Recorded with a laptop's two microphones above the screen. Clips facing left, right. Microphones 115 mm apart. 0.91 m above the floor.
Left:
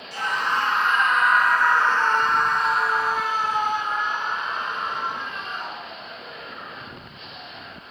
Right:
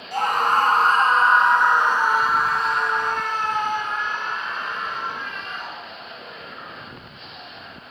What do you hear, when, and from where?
0.1 s a scream: 50° right (ahead or behind), 1.1 m; by 6.0 s 25° left (ahead or behind), 2.5 m